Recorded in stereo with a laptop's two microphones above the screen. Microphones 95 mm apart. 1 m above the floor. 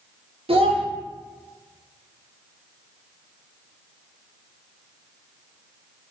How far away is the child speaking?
About 0.6 m.